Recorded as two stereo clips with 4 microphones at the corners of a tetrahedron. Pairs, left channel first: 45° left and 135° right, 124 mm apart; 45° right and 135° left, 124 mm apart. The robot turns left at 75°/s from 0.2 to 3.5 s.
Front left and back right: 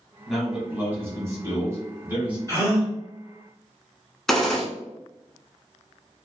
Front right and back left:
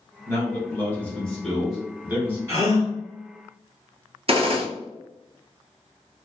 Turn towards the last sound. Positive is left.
turn(degrees=130)